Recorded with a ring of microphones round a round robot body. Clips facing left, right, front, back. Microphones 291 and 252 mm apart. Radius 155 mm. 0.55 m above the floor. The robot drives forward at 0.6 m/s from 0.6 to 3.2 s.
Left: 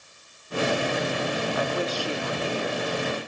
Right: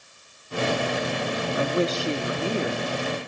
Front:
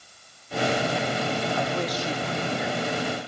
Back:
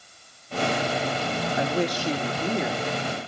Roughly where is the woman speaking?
Behind right.